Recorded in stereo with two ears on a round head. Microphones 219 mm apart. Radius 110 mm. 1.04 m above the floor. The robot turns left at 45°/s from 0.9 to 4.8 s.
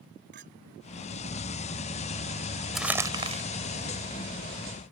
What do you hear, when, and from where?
0.3 s a clink: 45° right (ahead or behind)
2.8 s crumpling: centre (ahead or behind); by 3.4 s 30° right (ahead or behind)